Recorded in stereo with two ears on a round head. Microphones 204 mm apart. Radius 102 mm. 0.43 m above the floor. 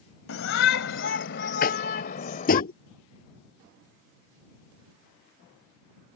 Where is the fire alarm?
No fire alarm in this recording.